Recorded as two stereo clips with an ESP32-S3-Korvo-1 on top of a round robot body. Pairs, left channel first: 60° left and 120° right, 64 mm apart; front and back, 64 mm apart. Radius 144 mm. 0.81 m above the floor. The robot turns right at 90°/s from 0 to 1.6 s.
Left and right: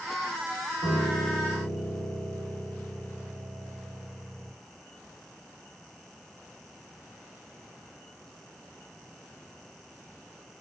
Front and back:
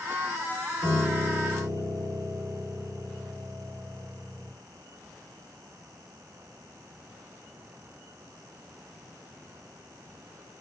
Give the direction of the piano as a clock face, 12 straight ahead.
3 o'clock.